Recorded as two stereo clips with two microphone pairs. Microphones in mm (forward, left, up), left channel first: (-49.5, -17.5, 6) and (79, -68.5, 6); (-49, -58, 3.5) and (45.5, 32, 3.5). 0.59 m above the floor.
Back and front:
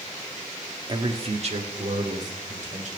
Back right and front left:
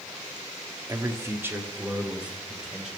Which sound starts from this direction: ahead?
A man speaking, at 0.9 s.